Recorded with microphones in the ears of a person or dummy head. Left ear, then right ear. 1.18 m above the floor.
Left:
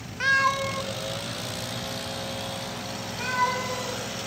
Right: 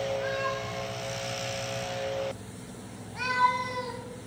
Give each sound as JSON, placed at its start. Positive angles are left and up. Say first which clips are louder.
{"t": 0.2, "sound": "a cat meowing", "louder": "left 9 dB", "side_deg": 60, "distance_m": 0.6}